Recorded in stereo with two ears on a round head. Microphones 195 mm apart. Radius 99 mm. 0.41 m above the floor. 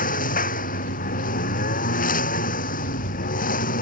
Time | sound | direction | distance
0.0 | a lawn mower | 40° left (ahead or behind) | ?